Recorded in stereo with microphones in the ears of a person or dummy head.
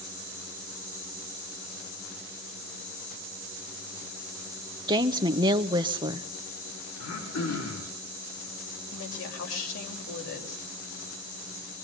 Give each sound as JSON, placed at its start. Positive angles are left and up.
{"t": 4.9, "sound": "a woman speaking", "side_deg": -25, "distance_m": 0.9}
{"t": 7.0, "sound": "throat clearing", "side_deg": 75, "distance_m": 8.0}
{"t": 8.9, "sound": "a woman speaking", "side_deg": 75, "distance_m": 6.0}